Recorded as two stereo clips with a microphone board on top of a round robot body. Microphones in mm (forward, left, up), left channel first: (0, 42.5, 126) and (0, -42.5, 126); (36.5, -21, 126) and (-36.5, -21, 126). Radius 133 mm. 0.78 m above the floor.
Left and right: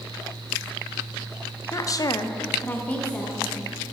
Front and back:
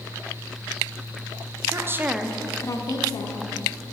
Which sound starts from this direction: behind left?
A woman speaking, at 1.7 s.